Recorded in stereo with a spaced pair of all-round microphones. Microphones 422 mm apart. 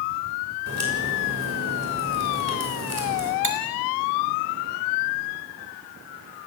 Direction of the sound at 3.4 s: 65° right (ahead or behind).